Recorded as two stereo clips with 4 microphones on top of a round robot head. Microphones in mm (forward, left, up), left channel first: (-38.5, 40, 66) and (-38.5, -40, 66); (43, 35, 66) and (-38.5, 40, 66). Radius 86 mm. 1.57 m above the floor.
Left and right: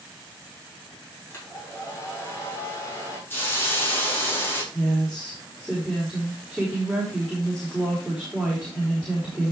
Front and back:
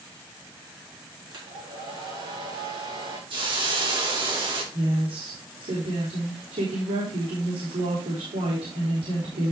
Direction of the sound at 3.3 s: 150° left.